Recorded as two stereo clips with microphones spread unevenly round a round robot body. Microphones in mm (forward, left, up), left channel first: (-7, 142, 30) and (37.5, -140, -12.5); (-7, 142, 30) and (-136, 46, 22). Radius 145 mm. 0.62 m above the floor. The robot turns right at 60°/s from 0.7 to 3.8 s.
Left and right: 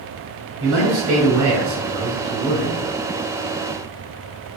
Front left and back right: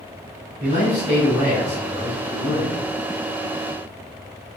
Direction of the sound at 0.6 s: 110° right.